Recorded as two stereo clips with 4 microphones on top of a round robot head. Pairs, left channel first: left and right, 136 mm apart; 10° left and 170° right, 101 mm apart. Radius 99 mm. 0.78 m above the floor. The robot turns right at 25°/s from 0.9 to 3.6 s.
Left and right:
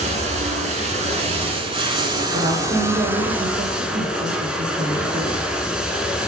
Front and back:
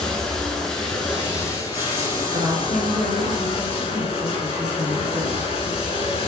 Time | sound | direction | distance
0.0 | running water | 75° right | 0.9 m
2.3 | a woman speaking | 120° right | 1.6 m